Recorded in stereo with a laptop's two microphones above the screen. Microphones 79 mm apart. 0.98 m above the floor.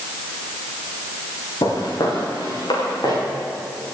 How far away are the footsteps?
About 5 m.